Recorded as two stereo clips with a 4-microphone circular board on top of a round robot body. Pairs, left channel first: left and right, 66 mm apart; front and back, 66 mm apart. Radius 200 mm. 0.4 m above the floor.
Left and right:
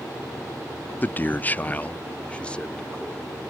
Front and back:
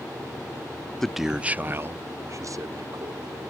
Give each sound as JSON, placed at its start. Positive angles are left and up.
{"t": 1.0, "sound": "a man speaking", "azimuth_deg": 75}